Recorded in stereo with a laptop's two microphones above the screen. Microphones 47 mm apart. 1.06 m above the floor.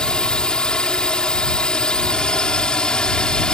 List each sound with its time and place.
0.0 s a drone: 20° left (ahead or behind)